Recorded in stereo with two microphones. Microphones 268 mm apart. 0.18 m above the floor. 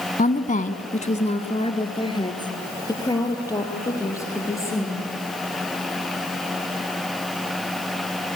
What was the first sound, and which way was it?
A woman speaking, 30° left (ahead or behind).